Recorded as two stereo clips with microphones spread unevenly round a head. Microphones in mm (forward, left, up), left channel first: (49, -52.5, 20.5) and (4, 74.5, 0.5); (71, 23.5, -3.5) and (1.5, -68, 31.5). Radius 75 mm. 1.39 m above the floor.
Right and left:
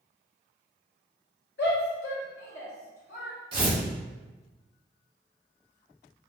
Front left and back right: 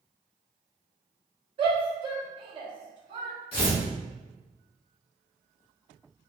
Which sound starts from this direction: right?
A shout, at 1.6 s.